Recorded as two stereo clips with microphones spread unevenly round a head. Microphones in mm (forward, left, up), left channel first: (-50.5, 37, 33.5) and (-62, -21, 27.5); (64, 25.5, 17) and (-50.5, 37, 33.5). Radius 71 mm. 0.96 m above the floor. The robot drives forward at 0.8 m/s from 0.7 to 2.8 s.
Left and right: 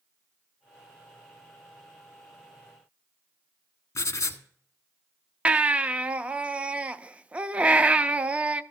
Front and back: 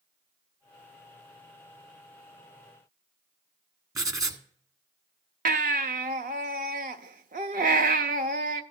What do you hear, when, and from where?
4.0 s writing: 115° left, 1.3 m
5.5 s a baby crying: 170° right, 0.5 m